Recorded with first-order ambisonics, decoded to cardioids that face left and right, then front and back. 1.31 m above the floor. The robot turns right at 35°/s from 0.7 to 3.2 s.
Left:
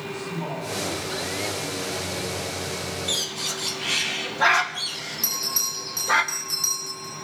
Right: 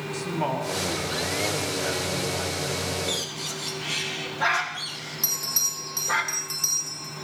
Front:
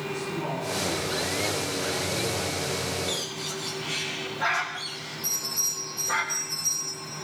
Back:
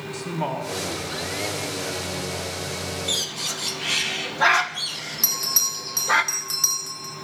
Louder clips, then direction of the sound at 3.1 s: Left 3 dB, back 5 dB; 145° left.